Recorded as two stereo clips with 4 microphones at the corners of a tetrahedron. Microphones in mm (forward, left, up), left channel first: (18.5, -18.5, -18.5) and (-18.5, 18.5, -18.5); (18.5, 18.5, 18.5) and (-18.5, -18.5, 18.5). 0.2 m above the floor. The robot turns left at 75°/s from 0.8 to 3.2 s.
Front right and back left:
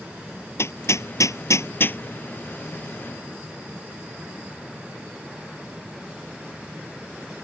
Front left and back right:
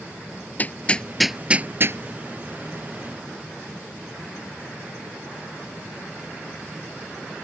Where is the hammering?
15° right; by 2.0 s 100° right.